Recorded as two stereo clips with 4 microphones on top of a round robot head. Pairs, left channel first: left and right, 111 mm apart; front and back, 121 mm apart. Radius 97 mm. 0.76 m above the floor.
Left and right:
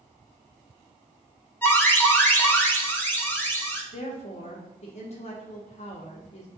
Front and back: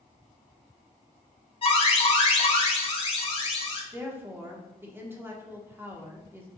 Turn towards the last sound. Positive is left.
turn(degrees=110)